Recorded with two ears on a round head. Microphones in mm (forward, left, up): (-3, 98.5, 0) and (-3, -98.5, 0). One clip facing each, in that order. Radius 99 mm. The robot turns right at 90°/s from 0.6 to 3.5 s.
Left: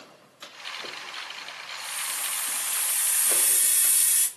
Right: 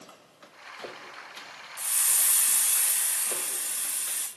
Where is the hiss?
115° right, 1.8 m; by 4.3 s 40° left, 1.8 m.